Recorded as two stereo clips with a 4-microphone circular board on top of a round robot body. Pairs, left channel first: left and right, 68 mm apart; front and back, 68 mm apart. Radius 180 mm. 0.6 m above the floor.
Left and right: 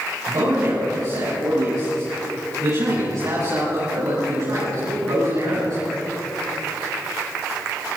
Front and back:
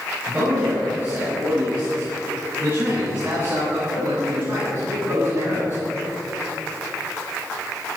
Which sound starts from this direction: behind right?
A man speaking, at 0.3 s.